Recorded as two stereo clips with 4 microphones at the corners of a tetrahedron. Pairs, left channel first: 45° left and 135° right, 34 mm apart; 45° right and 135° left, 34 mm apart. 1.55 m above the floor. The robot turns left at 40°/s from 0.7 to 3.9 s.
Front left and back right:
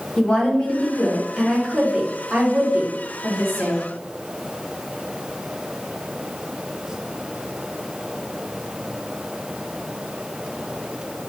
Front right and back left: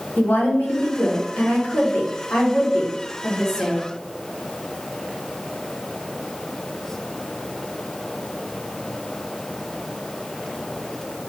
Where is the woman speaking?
15° right, 1.6 m; by 3.8 s 140° right, 1.6 m.